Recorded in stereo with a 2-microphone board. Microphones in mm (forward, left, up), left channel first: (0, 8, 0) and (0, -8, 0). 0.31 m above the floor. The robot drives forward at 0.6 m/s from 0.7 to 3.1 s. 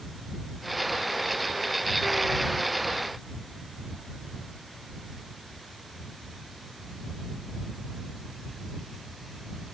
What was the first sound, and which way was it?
Only background noise.